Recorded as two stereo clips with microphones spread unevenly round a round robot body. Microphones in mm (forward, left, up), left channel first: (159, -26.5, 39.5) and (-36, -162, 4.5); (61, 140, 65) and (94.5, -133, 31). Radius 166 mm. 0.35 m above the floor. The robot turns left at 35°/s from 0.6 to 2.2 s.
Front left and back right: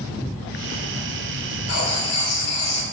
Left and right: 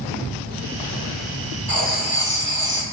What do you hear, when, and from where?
1.7 s writing: 45° left, 2.5 m; by 2.8 s 30° left, 2.5 m